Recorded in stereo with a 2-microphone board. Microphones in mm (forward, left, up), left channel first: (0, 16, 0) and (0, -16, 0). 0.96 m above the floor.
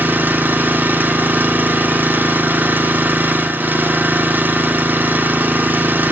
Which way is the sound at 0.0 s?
70° right (ahead or behind).